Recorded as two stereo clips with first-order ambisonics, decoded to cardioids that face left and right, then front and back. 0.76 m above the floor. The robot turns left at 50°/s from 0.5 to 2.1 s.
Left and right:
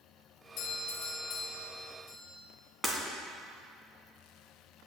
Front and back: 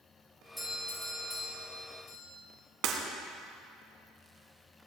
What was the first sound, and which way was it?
A doorbell, 90° left.